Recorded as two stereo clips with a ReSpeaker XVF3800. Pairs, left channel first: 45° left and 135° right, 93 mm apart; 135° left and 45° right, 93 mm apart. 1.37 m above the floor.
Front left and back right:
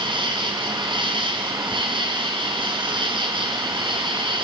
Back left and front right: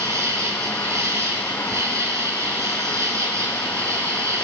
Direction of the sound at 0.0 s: 105° right.